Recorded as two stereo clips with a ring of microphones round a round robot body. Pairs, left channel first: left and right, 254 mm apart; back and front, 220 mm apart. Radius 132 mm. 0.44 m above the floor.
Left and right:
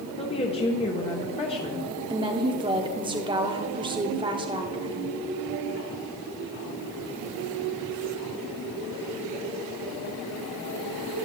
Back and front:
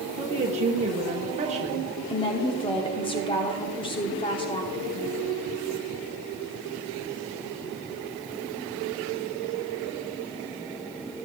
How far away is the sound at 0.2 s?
About 1.0 m.